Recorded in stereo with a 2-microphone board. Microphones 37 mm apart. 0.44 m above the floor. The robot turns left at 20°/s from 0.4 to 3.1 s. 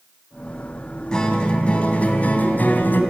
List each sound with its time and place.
1.1 s a guitar: 160° left, 2.5 m; by 3.0 s 120° left, 2.5 m